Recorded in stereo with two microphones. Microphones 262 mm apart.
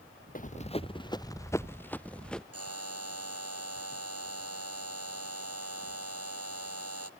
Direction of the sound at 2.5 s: 65° right (ahead or behind).